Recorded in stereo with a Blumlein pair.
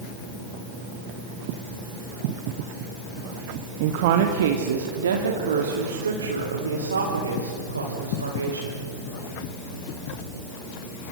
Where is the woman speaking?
45° right, 1.7 m; by 8.9 s 80° right, 5.5 m.